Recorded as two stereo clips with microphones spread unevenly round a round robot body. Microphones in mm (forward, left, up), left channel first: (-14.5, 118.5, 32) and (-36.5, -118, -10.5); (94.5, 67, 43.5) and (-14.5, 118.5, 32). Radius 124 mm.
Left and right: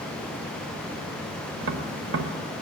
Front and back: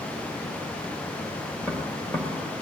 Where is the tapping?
105° right, 1.0 m.